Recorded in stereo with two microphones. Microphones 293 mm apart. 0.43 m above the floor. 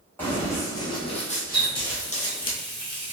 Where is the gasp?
No gasp in this recording.